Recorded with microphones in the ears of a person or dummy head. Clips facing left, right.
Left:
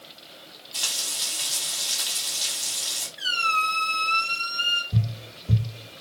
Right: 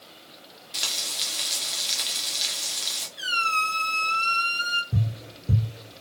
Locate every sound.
0.7 s frying: 30° right (ahead or behind), 0.7 m
3.2 s a squeak: 85° right, 1.5 m
4.9 s tapping: 10° right (ahead or behind), 0.9 m